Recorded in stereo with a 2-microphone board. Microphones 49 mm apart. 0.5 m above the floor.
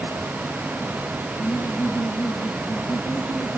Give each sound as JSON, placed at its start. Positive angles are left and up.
{"t": 1.4, "sound": "laughter", "side_deg": 75, "distance_m": 9.0}